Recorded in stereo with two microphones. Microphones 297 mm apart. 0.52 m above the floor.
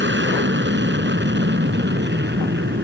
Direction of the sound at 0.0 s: 40° right (ahead or behind).